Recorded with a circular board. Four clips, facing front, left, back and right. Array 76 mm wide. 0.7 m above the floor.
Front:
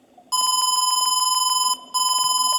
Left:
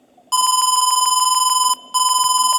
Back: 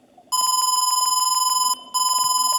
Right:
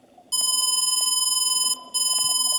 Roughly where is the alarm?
Left.